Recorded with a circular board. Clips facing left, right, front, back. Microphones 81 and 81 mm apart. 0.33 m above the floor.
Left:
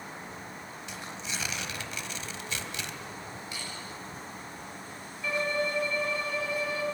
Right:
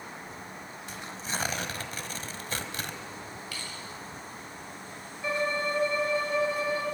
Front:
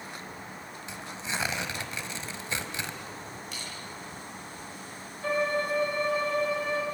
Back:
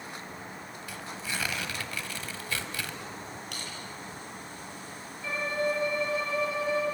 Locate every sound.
0.9 s tearing paper: 60° right, 1.7 m
3.5 s crushing: 155° left, 9.5 m
5.2 s a violin: 30° right, 4.5 m